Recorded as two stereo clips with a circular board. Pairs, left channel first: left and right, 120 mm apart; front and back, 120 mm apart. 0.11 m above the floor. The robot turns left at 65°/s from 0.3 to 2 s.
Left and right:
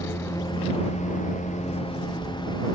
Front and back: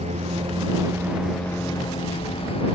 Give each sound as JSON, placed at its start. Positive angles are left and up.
{"t": 0.0, "sound": "a lawn mower", "azimuth_deg": 155}